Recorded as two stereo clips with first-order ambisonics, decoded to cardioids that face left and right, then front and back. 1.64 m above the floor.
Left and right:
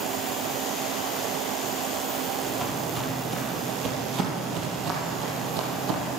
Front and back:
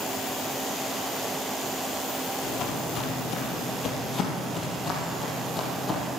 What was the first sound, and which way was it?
Footsteps, 10° right.